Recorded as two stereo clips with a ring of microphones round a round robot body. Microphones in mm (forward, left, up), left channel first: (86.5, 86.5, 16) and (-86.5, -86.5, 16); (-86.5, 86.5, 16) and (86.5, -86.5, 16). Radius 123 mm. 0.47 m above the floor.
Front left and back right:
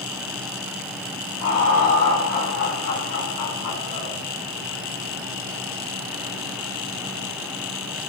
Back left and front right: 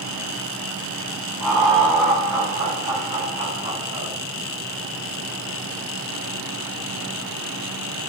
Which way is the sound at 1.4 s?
45° left.